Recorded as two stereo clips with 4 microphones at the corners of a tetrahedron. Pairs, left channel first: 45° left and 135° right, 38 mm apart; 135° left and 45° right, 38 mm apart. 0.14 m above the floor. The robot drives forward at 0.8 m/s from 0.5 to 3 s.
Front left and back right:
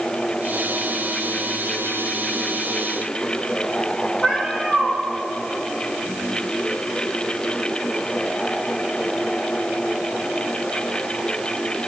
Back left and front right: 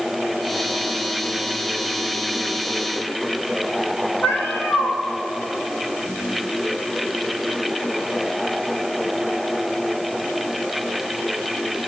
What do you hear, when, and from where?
4.2 s a cat meowing: 115° left, 5.5 m